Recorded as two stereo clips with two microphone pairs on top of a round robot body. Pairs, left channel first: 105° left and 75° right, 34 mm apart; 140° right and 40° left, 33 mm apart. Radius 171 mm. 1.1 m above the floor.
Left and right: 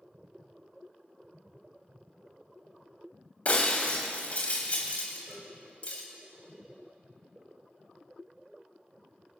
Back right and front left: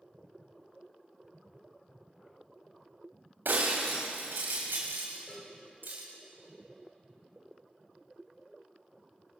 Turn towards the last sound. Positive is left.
turn(degrees=-115)